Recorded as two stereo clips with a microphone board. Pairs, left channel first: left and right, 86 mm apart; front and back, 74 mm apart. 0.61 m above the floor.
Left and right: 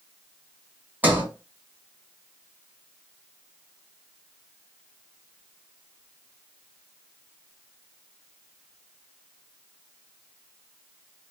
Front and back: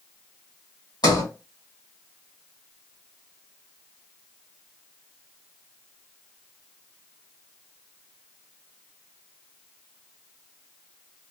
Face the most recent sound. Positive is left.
turn(degrees=-20)